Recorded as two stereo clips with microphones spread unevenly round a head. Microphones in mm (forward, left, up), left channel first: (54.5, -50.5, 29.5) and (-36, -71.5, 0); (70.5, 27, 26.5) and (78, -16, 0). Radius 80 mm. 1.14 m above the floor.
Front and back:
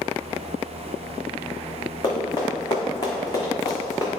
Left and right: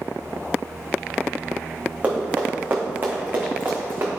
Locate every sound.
2.0 s running footsteps: 10° right, 3 m; by 4.1 s 25° right, 3.5 m